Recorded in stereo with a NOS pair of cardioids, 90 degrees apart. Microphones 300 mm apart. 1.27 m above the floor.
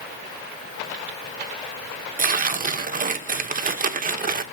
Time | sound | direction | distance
2.2 | tearing paper | 25° right | 1.3 m